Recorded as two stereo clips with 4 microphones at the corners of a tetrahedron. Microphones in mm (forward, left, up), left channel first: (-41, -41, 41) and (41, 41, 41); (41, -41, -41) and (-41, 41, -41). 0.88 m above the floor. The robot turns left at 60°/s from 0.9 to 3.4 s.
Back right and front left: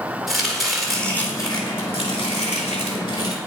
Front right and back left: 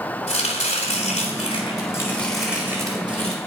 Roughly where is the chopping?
Ahead right.